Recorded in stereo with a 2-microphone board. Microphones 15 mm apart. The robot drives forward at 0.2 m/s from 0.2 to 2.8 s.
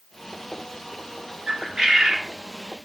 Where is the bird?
35° right (ahead or behind), 0.9 m; by 2.3 s 30° right (ahead or behind), 1.0 m.